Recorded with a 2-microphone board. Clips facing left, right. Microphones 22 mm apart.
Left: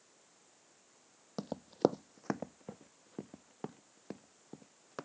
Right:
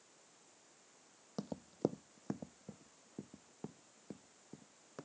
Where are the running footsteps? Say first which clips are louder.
Left 7 dB; 15° left (ahead or behind); by 5.0 s 40° left (ahead or behind).